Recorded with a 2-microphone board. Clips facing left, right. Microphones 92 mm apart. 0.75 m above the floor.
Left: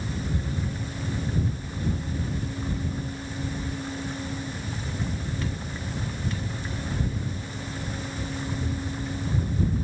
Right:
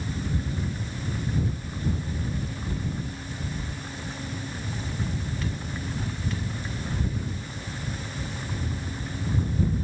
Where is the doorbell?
I don't hear a doorbell.